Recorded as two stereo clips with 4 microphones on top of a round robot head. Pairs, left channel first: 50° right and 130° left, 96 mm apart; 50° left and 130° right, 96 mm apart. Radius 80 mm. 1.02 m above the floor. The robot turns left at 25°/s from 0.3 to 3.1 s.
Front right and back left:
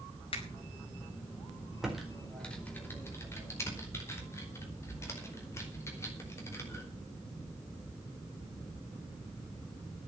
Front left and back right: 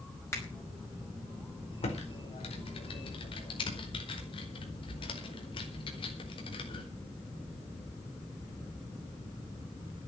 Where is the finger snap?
15° right, 4.5 m; by 0.5 s 20° right, 4.5 m.